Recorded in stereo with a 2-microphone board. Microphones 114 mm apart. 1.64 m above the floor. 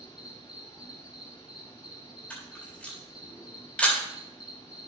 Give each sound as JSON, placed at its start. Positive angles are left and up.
{"t": 0.0, "sound": "an insect", "side_deg": 45, "distance_m": 2.5}
{"t": 2.3, "sound": "a camera shutter", "side_deg": 10, "distance_m": 3.5}